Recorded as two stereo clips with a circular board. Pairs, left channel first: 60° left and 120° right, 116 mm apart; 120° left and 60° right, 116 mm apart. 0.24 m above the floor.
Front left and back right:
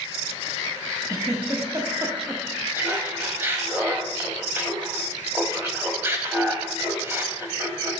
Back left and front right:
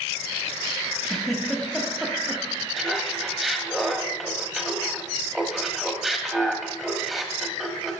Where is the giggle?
155° right, 1.1 m.